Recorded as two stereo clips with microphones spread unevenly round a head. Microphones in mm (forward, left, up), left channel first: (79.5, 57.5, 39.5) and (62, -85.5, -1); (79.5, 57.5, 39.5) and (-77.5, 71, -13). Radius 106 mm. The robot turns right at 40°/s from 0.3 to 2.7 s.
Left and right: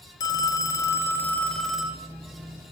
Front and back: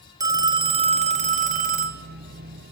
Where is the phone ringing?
95° left, 0.6 m; by 2.0 s 165° left, 0.6 m.